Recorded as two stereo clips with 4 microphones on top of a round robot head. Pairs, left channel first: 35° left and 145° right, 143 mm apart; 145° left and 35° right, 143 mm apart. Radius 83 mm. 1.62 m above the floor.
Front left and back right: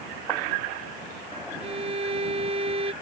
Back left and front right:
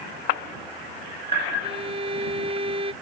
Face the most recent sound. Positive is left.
turn(degrees=-90)